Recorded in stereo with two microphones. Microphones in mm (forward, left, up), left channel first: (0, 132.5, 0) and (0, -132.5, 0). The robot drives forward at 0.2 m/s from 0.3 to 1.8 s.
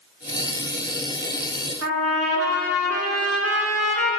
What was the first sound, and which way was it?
A trumpet, 65° right (ahead or behind).